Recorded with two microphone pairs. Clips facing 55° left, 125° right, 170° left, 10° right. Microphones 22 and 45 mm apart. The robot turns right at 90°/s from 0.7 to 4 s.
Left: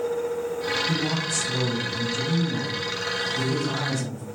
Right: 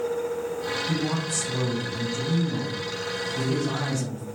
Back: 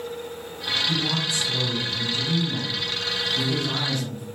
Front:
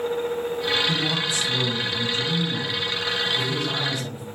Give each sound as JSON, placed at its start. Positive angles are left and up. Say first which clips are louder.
{"t": 0.9, "sound": "a man speaking", "louder": "left 2 dB, front 1 dB", "azimuth_deg": 5, "distance_m": 1.1}